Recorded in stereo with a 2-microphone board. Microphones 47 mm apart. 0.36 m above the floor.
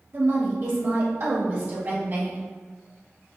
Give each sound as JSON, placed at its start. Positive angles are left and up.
{"t": 0.1, "sound": "a woman speaking", "side_deg": -50, "distance_m": 1.3}